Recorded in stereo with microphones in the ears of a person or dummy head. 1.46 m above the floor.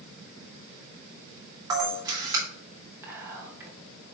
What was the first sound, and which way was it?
A camera shutter, 20° right (ahead or behind).